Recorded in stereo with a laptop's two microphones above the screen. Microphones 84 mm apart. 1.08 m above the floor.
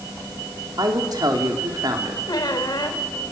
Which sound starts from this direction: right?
A woman speaking, at 0.8 s.